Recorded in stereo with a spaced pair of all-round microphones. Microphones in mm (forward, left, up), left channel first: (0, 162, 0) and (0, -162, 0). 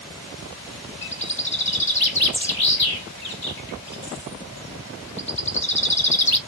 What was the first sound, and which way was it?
A bird, 35° left (ahead or behind).